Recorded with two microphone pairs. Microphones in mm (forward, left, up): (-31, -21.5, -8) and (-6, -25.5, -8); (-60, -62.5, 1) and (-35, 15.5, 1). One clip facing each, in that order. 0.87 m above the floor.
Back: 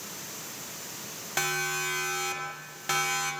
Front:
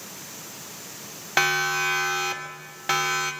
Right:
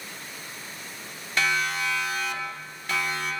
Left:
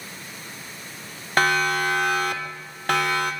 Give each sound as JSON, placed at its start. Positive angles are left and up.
{"t": 1.4, "sound": "a siren", "azimuth_deg": 40, "distance_m": 3.0}